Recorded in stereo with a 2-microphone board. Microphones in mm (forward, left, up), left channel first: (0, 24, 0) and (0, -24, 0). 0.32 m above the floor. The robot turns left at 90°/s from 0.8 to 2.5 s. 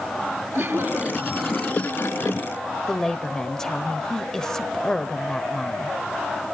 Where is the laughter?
120° right, 5.5 m; by 2.4 s 95° left, 5.5 m.